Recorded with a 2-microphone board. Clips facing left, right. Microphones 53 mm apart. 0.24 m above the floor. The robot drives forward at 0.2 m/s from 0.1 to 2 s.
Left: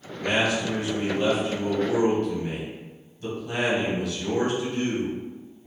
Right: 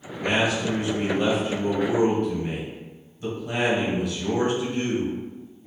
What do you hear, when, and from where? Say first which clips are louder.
0.2 s a man speaking: right 1 dB; 20° right (ahead or behind), 1.0 m; by 5.2 s 15° right (ahead or behind), 1.1 m